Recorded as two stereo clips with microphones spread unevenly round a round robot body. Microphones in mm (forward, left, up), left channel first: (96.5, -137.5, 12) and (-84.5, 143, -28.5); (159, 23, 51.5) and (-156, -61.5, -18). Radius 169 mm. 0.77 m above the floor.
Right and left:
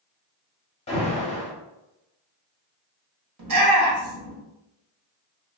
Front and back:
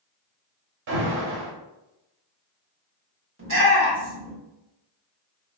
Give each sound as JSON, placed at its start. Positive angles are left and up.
{"t": 0.9, "sound": "an alarm", "azimuth_deg": -130, "distance_m": 0.8}
{"t": 3.4, "sound": "a shout", "azimuth_deg": 150, "distance_m": 1.4}